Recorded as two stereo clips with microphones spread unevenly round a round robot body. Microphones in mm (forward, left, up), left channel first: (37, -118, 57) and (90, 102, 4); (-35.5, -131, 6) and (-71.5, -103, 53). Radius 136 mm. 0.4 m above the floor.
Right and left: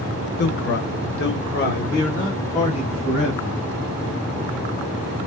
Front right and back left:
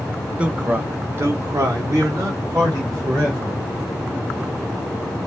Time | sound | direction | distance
0.4 | a man speaking | 85° right | 1.0 m